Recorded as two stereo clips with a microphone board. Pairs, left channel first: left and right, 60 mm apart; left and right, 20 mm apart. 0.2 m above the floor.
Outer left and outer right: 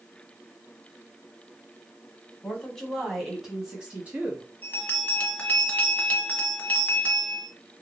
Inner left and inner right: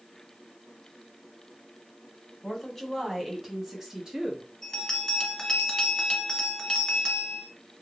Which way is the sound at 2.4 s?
10° left (ahead or behind).